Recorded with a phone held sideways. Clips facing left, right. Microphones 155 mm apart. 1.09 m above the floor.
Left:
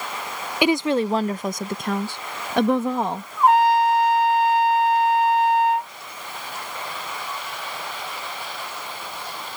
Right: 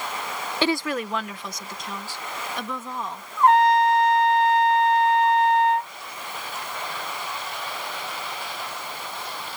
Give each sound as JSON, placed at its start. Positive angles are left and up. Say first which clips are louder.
{"t": 0.6, "sound": "a woman speaking", "louder": "left 6 dB", "side_deg": 10}
{"t": 3.4, "sound": "a trumpet", "louder": "even", "side_deg": 5}